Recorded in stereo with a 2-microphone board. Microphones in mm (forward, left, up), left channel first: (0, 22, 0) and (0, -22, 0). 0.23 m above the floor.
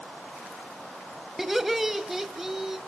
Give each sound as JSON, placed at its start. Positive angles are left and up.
{"t": 1.4, "sound": "laughter", "side_deg": -5, "distance_m": 1.1}